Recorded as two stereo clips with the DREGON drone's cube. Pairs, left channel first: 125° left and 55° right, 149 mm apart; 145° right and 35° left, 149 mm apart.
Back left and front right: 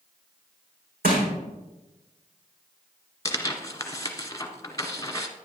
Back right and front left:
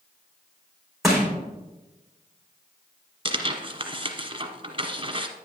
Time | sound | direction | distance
1.0 | crushing | 55° right | 5 m
3.2 | tearing paper | 65° left | 1.1 m